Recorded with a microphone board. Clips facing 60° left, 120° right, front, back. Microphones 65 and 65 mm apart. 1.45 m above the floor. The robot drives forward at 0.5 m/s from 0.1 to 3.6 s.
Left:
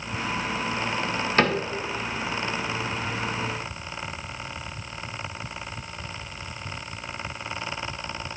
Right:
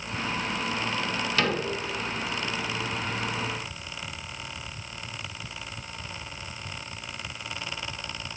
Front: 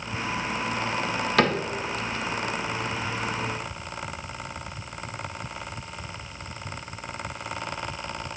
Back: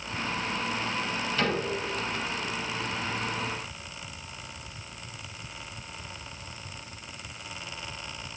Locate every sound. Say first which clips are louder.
1.4 s a cupboard door: left 5 dB, front 6 dB; 10° left, 0.9 m; by 1.6 s 15° left, 0.8 m